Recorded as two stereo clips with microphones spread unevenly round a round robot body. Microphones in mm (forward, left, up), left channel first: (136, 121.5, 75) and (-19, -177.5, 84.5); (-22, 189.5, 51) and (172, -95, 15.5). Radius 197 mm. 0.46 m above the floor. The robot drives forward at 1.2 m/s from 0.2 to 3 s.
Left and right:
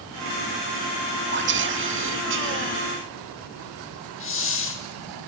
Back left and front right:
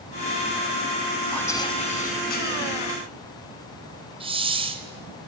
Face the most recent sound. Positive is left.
turn(degrees=15)